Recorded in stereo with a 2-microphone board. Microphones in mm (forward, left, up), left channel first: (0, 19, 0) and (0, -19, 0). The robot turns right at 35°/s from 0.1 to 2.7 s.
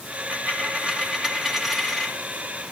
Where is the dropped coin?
50° right, 1.3 m; by 2.1 s 15° left, 1.3 m.